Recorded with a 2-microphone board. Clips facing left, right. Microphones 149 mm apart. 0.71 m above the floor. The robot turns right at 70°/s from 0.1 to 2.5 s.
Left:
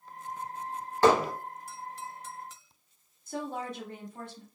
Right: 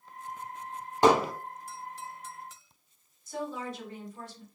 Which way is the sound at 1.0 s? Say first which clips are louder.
Even; 15° right (ahead or behind).